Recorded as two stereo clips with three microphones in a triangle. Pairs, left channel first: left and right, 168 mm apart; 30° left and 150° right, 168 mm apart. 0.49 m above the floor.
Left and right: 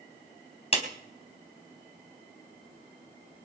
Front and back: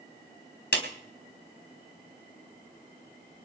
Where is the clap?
40° left, 3.5 m.